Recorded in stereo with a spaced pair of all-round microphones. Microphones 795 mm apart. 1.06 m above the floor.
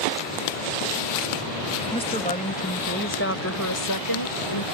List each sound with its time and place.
1.9 s a woman speaking: 5° left (ahead or behind); by 4.7 s 35° left (ahead or behind)